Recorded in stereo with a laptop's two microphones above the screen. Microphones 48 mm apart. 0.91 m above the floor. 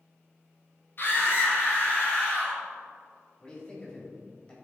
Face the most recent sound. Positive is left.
turn(degrees=20)  # may be behind; listen again after turning